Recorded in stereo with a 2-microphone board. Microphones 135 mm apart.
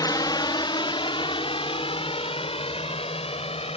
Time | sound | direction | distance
0.0 | a drone | 30° left (ahead or behind) | ?